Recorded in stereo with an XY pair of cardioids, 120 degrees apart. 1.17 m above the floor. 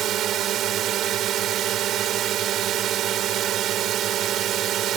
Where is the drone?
65° right.